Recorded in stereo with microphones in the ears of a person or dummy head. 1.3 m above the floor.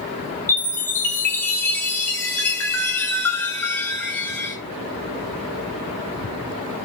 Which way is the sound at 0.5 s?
15° left (ahead or behind).